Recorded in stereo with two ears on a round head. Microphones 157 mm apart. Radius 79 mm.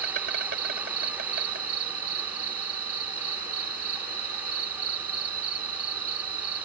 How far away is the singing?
I don't hear singing.